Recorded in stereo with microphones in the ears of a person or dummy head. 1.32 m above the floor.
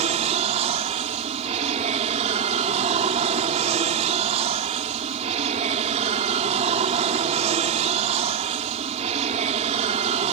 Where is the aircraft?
35° right (ahead or behind).